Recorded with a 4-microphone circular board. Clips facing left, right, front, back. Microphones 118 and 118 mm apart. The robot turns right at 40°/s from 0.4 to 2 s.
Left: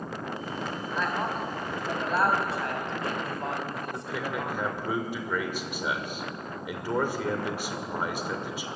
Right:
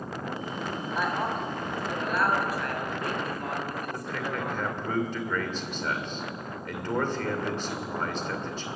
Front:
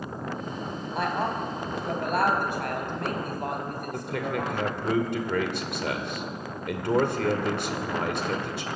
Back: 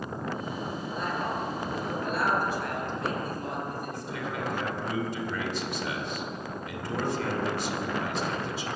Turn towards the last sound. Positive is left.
turn(degrees=10)